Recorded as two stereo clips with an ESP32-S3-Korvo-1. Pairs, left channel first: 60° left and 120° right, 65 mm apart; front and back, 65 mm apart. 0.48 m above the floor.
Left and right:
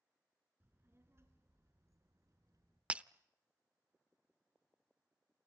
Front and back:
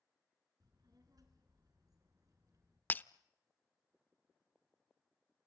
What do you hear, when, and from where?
0.6 s a child speaking: 175° right, 5.5 m; by 2.8 s 145° right, 5.5 m
2.9 s breaking glass: 55° right, 0.5 m